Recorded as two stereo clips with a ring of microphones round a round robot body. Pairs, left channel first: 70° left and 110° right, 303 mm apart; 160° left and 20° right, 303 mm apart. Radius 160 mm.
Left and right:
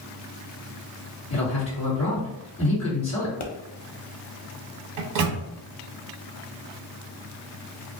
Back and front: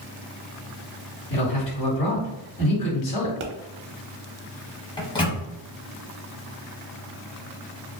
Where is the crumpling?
I don't hear crumpling.